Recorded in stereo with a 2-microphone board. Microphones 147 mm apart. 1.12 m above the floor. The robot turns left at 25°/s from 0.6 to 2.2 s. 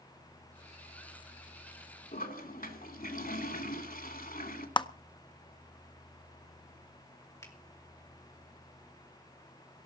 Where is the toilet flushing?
85° left, 2.5 m.